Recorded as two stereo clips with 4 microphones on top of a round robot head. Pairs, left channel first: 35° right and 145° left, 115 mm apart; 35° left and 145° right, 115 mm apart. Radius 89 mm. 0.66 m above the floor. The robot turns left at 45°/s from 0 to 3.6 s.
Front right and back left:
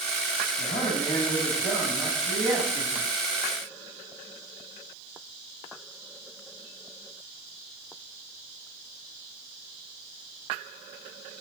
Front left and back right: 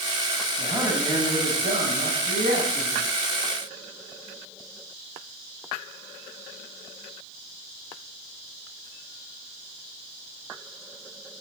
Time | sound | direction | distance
0.6 | a man speaking | 65° right | 4 m